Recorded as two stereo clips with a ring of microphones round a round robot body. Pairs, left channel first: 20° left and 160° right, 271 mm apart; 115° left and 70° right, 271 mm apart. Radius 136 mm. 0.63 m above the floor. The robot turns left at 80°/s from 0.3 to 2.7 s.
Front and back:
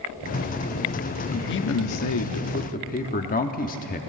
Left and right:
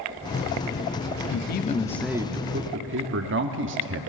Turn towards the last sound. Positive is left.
turn(degrees=-30)